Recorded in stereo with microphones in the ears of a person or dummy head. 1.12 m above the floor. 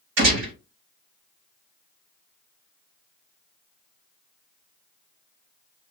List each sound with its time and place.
0.2 s a gunshot: 60° right (ahead or behind), 1.7 m